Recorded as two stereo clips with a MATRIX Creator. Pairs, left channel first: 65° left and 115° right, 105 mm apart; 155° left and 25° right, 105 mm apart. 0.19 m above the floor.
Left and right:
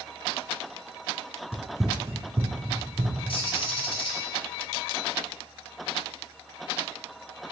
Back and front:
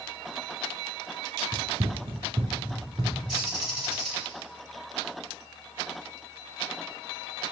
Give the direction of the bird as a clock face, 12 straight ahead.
10 o'clock.